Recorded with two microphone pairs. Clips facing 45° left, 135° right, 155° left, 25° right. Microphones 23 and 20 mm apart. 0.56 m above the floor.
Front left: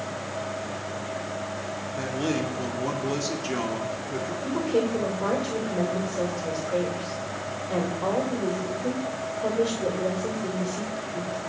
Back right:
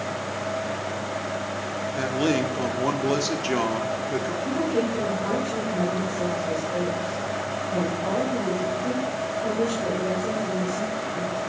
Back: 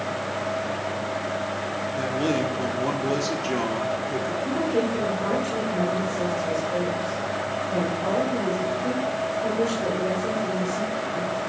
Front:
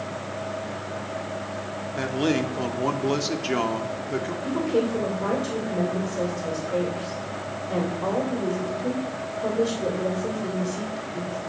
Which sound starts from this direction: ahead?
A woman speaking, at 4.4 s.